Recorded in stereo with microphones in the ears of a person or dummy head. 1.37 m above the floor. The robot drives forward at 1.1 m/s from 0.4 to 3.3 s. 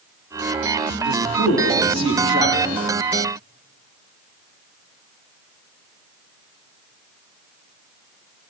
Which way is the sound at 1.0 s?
30° right (ahead or behind).